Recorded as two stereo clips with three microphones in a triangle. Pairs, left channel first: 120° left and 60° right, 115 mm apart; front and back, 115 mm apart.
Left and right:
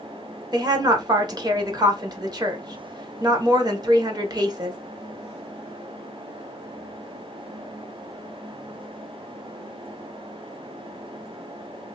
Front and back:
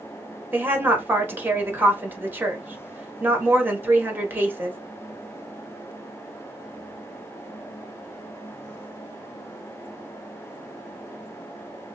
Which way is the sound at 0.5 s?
110° right.